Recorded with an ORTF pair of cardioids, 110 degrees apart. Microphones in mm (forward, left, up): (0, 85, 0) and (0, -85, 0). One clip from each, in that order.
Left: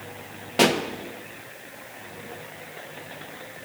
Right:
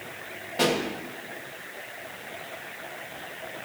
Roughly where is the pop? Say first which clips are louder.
Left 4 dB; ahead left.